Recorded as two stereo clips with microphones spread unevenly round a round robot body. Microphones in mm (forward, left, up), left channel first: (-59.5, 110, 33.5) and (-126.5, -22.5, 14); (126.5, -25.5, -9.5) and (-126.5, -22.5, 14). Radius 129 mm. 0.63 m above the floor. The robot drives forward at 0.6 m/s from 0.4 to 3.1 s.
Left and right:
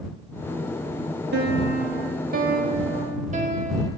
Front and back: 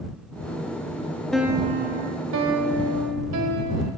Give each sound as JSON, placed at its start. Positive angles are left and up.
{"t": 1.3, "sound": "a piano", "azimuth_deg": -90, "distance_m": 0.5}